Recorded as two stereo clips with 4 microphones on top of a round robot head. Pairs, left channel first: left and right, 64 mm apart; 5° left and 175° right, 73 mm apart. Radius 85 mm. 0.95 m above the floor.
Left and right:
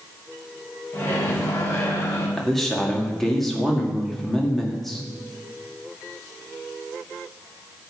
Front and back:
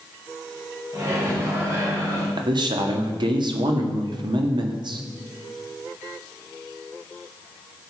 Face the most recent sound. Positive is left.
turn(degrees=175)